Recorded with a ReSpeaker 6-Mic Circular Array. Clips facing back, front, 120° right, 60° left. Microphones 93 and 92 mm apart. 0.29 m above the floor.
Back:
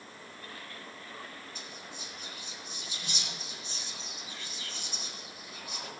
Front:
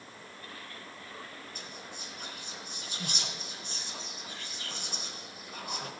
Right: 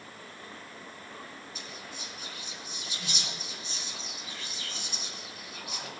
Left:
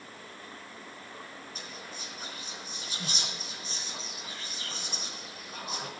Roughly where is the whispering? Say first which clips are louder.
Front 1 dB, even; ahead.